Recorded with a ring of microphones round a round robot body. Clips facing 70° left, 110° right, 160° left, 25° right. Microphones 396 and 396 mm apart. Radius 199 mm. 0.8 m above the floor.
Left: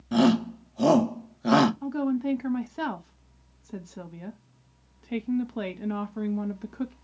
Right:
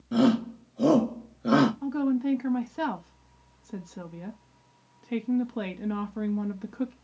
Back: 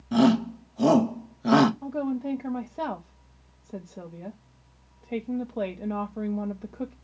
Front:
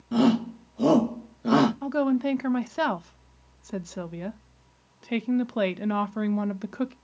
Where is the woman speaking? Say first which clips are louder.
Right 1 dB, front 5 dB; 20° right, 0.5 m.